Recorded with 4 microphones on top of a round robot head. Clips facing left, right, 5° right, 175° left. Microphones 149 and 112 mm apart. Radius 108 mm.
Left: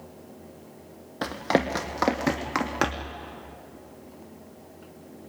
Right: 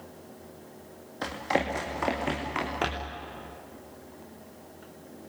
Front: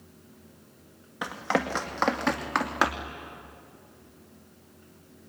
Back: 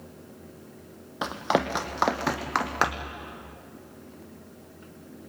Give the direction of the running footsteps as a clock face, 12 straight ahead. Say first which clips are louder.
Left 4 dB, back 2 dB; 8 o'clock.